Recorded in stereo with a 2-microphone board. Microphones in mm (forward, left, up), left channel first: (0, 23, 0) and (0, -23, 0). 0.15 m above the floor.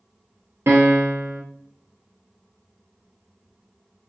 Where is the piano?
75° right (ahead or behind), 0.6 m.